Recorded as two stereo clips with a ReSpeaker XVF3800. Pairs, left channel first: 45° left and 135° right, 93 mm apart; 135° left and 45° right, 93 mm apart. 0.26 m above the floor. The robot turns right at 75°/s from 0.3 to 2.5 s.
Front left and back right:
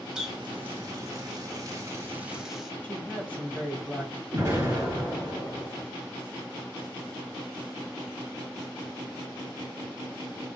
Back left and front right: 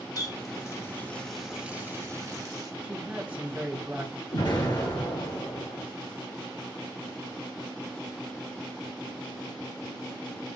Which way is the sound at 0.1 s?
145° left.